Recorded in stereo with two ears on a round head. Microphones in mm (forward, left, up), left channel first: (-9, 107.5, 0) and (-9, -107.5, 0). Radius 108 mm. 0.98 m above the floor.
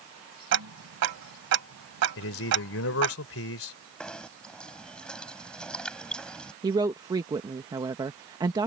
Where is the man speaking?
60° left (ahead or behind).